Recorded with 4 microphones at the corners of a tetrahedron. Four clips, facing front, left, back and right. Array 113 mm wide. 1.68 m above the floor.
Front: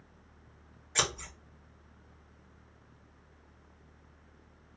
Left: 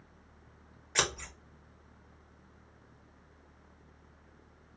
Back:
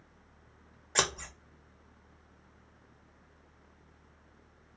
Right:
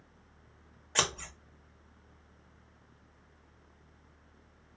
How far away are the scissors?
About 1.1 m.